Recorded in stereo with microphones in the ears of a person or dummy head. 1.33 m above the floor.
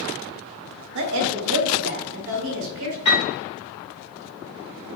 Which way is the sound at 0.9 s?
65° right (ahead or behind).